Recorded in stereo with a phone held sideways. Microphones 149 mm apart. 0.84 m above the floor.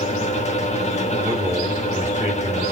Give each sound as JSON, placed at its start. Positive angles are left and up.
{"t": 0.0, "sound": "a fan", "side_deg": 50, "distance_m": 0.9}
{"t": 1.2, "sound": "a man speaking", "side_deg": -20, "distance_m": 1.8}